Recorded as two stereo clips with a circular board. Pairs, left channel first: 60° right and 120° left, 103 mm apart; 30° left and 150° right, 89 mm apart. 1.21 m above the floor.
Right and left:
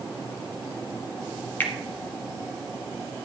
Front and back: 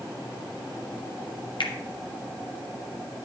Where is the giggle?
I don't hear a giggle.